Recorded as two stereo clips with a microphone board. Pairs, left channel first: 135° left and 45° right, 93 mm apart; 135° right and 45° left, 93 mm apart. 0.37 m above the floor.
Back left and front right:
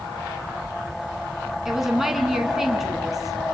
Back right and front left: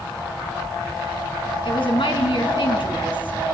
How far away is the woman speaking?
About 4 m.